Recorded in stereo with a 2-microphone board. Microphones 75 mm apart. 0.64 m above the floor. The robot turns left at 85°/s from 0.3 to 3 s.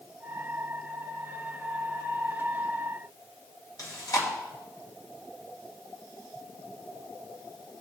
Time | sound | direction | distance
3.8 | chewing | 50° left (ahead or behind) | 3.5 m